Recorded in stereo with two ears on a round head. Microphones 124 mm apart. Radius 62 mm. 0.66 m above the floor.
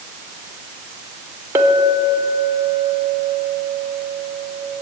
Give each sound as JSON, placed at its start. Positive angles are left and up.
{"t": 1.6, "sound": "a clink", "side_deg": -20, "distance_m": 1.0}